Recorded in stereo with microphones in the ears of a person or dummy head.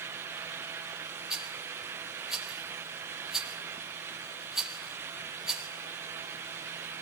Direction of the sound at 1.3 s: Centre (ahead or behind).